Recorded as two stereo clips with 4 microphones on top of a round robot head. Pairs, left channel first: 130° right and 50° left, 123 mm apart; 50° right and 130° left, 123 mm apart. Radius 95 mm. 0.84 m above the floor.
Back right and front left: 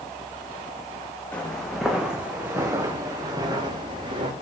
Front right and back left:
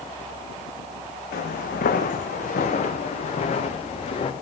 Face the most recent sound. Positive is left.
turn(degrees=0)